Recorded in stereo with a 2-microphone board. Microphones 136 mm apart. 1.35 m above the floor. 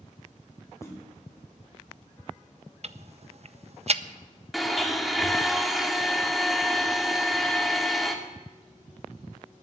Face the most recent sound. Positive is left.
turn(degrees=0)  # may be behind; listen again after turning